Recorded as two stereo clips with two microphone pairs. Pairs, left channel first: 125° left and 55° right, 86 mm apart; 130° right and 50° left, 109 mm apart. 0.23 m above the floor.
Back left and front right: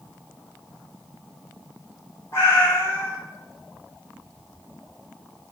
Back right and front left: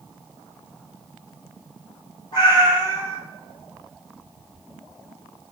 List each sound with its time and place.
2.3 s a cat meowing: straight behind, 1.0 m